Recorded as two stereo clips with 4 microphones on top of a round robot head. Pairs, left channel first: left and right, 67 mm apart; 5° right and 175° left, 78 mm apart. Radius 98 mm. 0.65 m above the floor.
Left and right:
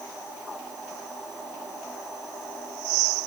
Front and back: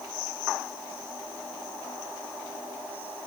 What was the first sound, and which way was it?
Only background noise.